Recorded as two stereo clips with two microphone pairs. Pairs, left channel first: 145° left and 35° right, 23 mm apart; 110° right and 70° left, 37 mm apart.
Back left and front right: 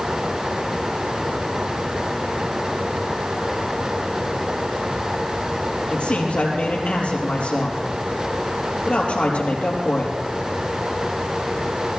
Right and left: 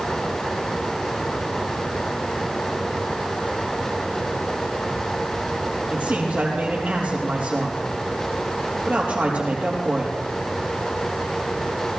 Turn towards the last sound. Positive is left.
turn(degrees=115)